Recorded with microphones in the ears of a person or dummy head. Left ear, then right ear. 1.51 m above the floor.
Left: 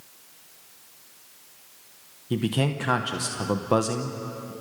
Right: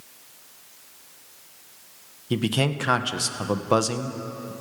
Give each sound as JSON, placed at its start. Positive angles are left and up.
{"t": 2.3, "sound": "a man speaking", "side_deg": -15, "distance_m": 1.0}